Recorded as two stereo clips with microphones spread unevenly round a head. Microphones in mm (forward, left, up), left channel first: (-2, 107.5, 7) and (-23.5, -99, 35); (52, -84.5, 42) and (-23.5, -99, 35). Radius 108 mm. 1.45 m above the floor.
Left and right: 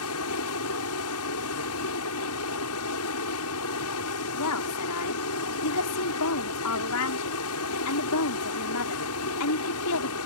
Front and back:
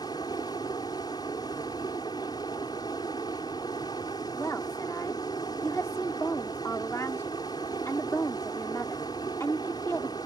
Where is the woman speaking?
85° left.